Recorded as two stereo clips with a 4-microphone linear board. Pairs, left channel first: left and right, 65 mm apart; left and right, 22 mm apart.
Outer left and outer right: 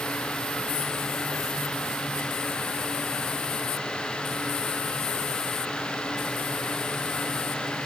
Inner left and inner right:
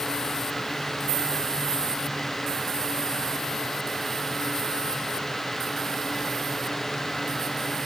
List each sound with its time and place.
Only background noise.